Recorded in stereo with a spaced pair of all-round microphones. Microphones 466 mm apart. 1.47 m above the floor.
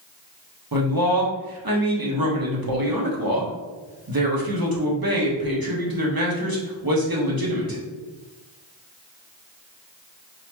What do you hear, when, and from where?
0.7 s a man speaking: 45° right (ahead or behind), 1.2 m